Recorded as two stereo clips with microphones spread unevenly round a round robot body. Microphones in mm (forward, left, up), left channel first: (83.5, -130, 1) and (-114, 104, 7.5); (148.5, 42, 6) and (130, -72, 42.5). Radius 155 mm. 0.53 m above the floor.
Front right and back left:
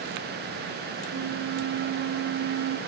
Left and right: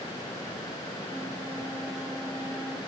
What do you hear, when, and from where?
1.1 s a flute: 165° left, 0.7 m